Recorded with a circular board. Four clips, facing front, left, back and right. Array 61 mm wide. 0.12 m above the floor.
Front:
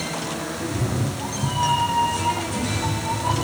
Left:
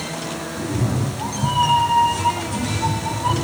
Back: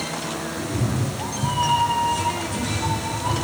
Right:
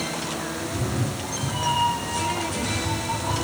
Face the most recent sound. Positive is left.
turn(degrees=95)